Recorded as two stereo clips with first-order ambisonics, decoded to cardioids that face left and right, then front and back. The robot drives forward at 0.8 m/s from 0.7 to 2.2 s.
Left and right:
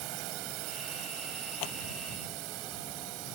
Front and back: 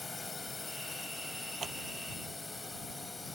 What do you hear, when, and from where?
0.0 s a drone: 80° right
1.6 s scissors: 110° left